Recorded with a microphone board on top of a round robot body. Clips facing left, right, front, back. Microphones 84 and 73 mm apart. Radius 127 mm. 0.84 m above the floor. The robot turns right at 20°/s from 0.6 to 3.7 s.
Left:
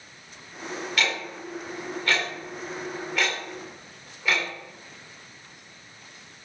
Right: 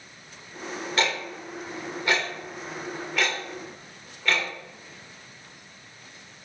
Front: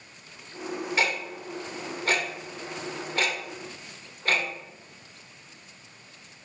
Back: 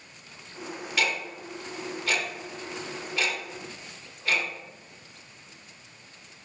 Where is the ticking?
45° right, 1.2 m; by 4.5 s 10° left, 1.2 m.